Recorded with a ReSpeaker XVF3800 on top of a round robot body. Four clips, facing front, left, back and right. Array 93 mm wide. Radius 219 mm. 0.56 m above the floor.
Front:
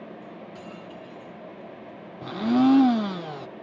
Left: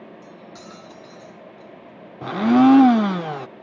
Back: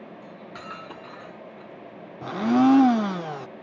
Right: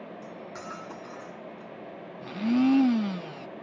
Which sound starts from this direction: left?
A blender, at 2.2 s.